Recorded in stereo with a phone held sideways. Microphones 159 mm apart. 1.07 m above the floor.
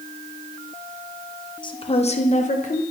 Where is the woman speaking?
30° left (ahead or behind), 0.7 m; by 2.8 s 55° left (ahead or behind), 1.1 m.